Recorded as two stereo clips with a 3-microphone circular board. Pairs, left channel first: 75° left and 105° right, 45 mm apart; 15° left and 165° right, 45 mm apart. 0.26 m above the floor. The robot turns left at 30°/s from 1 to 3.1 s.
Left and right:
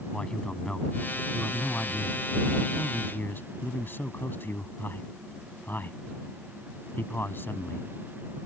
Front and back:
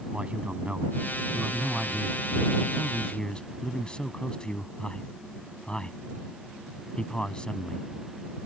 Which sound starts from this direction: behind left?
A man speaking, at 0.1 s.